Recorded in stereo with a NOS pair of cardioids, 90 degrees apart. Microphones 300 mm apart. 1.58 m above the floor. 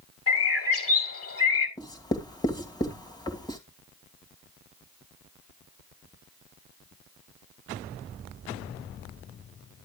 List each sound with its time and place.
0.3 s a bird: 50° left, 3.5 m
1.8 s writing: 10° left, 2.5 m